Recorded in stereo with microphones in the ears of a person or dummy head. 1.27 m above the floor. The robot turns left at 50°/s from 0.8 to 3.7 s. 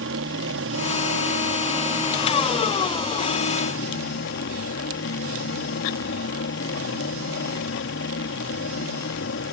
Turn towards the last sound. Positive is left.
turn(degrees=55)  # may be behind; listen again after turning